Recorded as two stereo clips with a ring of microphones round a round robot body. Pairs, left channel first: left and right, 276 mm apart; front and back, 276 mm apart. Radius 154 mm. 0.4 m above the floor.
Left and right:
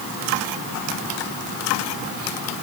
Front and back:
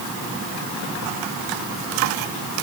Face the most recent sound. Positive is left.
No sound to turn to.